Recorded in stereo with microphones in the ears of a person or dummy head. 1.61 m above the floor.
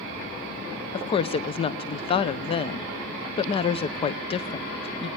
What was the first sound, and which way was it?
A woman speaking, 40° left (ahead or behind).